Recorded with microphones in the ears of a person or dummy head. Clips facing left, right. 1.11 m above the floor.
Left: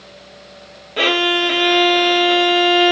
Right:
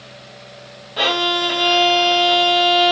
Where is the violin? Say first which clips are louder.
Left 3 dB; 30° left (ahead or behind), 1.1 m.